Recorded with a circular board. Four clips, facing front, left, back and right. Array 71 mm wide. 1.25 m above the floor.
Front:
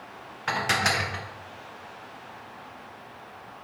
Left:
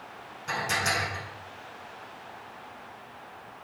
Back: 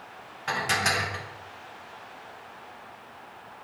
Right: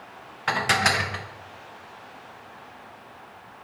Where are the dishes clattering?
75° right, 0.7 m.